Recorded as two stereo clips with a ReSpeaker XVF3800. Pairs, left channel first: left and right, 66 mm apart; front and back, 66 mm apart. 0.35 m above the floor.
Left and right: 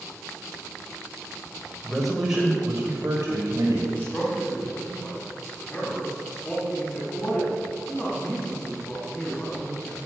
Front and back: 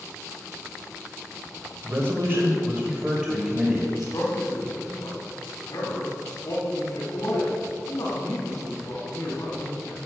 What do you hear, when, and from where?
1.8 s a man speaking: 165° left, 1.3 m; by 3.8 s 105° right, 2.0 m
3.9 s a man speaking: 30° left, 2.5 m